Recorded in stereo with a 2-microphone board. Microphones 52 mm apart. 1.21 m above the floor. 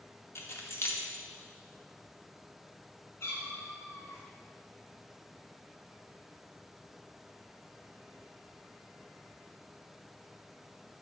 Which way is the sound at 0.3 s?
55° left (ahead or behind).